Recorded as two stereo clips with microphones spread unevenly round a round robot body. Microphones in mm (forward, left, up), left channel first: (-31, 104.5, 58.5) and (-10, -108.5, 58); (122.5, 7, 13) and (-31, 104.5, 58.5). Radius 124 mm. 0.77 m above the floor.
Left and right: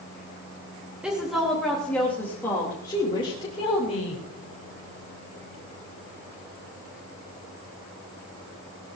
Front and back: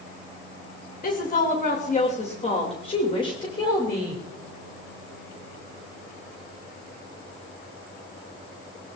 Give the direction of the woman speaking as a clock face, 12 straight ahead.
12 o'clock.